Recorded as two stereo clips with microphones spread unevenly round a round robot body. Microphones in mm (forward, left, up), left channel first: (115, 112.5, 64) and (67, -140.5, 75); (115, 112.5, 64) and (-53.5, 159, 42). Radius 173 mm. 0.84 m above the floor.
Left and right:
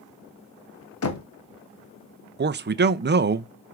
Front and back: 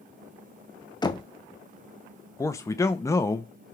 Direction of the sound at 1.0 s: 55° left.